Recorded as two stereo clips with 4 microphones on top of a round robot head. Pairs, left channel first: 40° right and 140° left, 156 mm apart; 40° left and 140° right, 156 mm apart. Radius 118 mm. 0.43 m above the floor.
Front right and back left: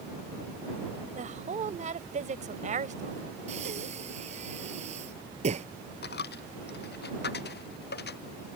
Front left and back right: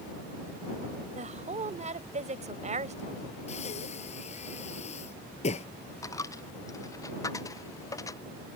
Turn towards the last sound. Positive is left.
turn(degrees=-30)